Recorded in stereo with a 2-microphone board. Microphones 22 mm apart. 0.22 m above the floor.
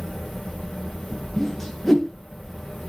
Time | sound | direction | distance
0.0 | an insect | 15° left (ahead or behind) | 4 m
1.4 | a whoosh | 10° left (ahead or behind) | 3 m